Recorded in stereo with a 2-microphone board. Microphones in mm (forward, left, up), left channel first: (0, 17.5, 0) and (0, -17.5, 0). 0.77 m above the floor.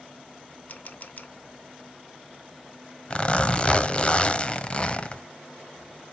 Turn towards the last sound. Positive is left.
turn(degrees=30)  # may be behind; listen again after turning